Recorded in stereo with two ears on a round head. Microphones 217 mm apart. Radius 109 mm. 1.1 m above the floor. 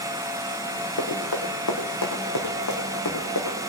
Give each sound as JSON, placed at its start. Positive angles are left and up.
{"t": 1.0, "sound": "running footsteps", "side_deg": 60, "distance_m": 5.0}